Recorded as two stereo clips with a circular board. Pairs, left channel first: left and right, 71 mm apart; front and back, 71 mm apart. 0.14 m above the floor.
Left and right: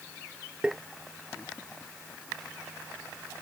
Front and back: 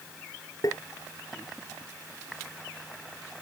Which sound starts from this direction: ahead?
Tapping, at 0.6 s.